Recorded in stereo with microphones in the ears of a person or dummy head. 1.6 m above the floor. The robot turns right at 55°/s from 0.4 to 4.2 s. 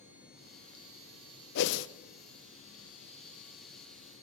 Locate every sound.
1.6 s a whoosh: 60° left (ahead or behind), 0.7 m; by 1.9 s 75° left (ahead or behind), 0.7 m